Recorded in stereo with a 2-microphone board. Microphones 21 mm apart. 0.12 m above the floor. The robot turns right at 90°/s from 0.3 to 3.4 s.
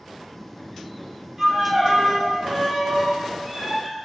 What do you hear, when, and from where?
1.4 s a violin: 140° right, 1.3 m; by 4.0 s 40° left, 1.3 m